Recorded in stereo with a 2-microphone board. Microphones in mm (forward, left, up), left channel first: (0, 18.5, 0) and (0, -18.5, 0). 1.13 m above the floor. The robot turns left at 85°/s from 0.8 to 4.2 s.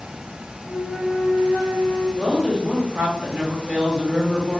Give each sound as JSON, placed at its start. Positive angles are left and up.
{"t": 0.7, "sound": "a flute", "azimuth_deg": 180, "distance_m": 0.6}
{"t": 2.2, "sound": "a woman speaking", "azimuth_deg": 0, "distance_m": 0.9}